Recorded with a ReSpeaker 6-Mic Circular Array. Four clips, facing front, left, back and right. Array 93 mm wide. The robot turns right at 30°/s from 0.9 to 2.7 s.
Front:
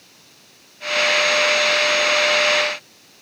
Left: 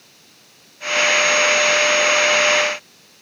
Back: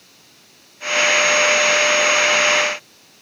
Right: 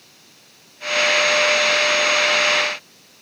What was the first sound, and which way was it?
Only background noise.